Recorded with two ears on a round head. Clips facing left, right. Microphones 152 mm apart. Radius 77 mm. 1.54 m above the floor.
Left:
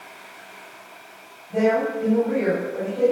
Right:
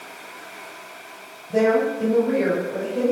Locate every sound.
1.5 s a woman speaking: 45° right (ahead or behind), 9 m; by 3.1 s 40° right (ahead or behind), 9 m